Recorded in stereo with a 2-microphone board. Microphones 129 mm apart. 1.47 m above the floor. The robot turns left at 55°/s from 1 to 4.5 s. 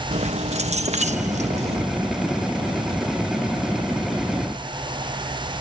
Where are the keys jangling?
75° right; by 1.9 s 120° right.